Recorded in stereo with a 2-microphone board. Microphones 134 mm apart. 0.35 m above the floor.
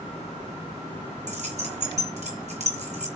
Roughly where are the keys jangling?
Right.